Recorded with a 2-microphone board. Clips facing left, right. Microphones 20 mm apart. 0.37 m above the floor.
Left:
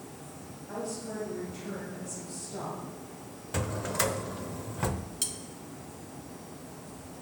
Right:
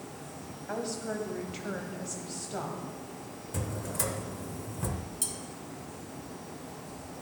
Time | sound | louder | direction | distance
0.7 | a woman speaking | right 2 dB | 55° right (ahead or behind) | 2 m
3.5 | a drawer | left 5 dB | 40° left (ahead or behind) | 0.5 m
5.2 | cutlery clinking | left 2 dB | 40° left (ahead or behind) | 1.0 m